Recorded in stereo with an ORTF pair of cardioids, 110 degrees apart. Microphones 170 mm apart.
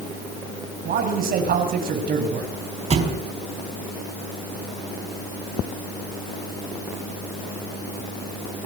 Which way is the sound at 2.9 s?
35° right.